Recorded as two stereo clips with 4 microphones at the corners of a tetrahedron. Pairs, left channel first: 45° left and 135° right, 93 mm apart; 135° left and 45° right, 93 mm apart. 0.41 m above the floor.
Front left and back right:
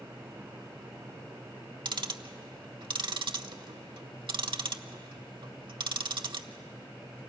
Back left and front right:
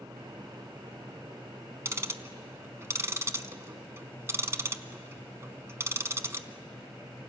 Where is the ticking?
105° right, 0.7 m.